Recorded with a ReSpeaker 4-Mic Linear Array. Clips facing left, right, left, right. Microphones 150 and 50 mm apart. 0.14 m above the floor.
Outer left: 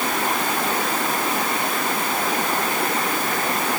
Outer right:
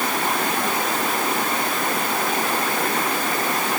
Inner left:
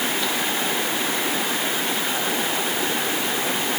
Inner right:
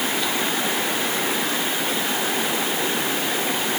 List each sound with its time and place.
Only background noise.